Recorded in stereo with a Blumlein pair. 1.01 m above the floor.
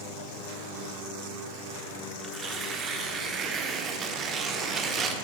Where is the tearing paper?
25° right, 1.1 m.